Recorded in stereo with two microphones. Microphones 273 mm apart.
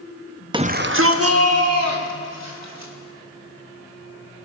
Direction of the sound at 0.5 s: 15° right (ahead or behind).